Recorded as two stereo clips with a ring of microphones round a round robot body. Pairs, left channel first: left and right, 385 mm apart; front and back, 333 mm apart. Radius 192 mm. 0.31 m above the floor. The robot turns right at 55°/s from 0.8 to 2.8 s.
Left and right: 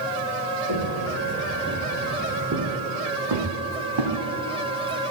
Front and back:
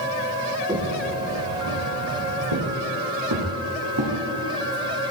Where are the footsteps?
105° left, 4.5 m; by 4.1 s 125° right, 4 m.